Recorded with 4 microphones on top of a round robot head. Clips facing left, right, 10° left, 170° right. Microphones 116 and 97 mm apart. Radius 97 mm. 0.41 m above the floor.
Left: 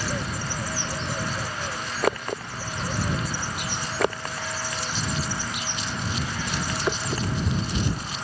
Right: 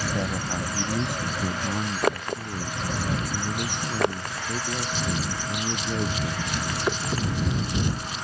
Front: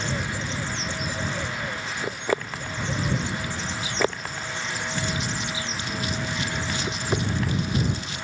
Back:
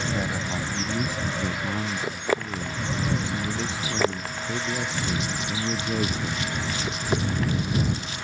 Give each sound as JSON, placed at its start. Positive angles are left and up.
{"t": 0.1, "sound": "a man speaking", "azimuth_deg": -115}